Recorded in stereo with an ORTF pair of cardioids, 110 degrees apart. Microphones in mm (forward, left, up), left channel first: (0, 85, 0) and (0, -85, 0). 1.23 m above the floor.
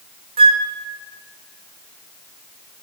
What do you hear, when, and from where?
0.4 s a flute: 35° right, 0.9 m